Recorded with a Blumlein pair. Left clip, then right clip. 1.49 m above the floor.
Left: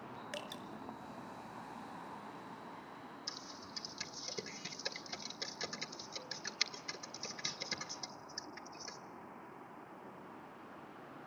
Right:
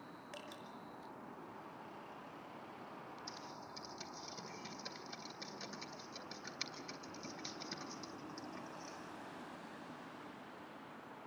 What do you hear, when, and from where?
0.3 s dripping: 70° left, 5 m
3.3 s typing on a keyboard: 65° left, 1.7 m